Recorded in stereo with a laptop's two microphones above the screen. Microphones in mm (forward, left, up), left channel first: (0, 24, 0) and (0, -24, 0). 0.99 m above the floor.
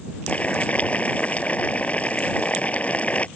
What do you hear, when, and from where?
0.3 s boiling: 30° left (ahead or behind)